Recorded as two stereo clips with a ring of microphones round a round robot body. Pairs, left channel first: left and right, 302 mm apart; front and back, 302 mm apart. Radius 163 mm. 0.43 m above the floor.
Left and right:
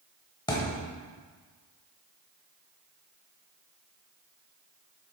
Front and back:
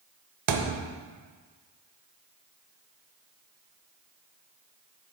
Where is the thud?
165° left, 0.8 m.